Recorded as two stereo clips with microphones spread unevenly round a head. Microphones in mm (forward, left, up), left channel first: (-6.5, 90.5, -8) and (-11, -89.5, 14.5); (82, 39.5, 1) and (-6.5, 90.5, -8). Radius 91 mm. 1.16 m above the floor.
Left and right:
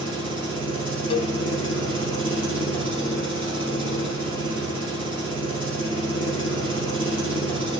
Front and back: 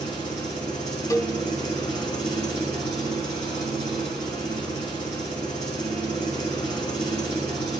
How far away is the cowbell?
About 0.7 m.